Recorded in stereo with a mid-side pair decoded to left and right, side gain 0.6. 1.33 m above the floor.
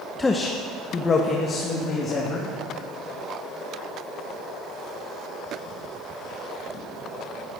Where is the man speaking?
20° left, 1.2 m; by 2.5 s 45° left, 3 m.